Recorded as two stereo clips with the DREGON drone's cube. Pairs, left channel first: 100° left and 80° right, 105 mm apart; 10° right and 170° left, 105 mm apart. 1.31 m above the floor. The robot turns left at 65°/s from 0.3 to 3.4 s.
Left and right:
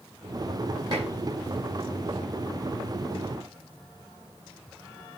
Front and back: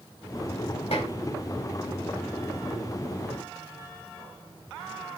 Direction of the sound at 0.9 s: 30° right.